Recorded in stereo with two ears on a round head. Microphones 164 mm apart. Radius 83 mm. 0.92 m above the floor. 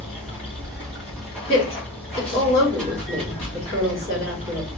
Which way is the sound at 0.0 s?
5° left (ahead or behind).